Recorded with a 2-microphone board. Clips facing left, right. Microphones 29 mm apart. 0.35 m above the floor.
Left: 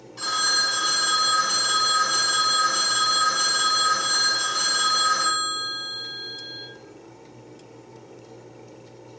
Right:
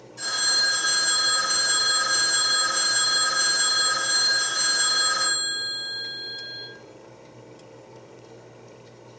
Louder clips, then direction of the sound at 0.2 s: Left 1 dB; 35° left (ahead or behind).